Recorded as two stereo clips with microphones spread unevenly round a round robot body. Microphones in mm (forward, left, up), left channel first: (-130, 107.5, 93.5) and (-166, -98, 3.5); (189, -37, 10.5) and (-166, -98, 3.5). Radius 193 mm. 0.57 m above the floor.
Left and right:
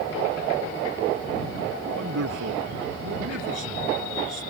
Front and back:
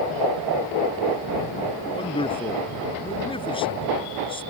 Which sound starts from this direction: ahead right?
A man speaking, at 1.9 s.